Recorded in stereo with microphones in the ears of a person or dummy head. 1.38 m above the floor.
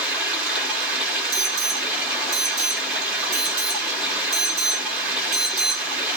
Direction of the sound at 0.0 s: 5° right (ahead or behind).